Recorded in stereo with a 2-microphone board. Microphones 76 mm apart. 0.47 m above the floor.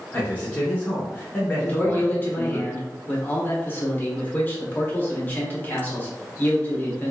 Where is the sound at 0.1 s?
20° left (ahead or behind), 0.8 m.